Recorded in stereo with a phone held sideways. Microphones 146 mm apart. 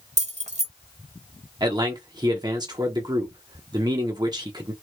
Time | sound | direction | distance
0.2 | keys jangling | 50° right (ahead or behind) | 0.7 m
1.6 | a man speaking | 25° right (ahead or behind) | 0.7 m